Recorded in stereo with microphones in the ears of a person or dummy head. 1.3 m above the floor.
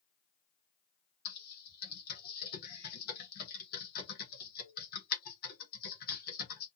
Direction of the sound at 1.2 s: 45° left (ahead or behind).